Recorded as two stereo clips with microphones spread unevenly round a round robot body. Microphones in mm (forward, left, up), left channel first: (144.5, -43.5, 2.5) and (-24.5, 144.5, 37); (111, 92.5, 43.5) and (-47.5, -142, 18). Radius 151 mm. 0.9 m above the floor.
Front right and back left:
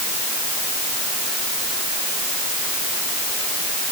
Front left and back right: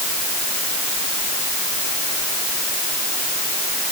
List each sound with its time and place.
Only background noise.